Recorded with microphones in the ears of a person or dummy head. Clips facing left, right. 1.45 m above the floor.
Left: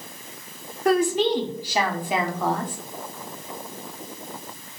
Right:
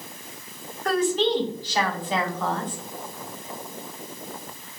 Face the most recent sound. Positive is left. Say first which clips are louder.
# left 2 dB
turn(degrees=10)  # may be behind; listen again after turning